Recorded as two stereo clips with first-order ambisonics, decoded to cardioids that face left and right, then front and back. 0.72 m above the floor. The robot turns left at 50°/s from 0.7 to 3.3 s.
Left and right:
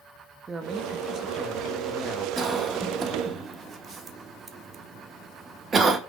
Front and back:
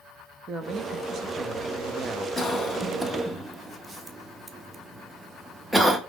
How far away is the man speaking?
About 0.5 m.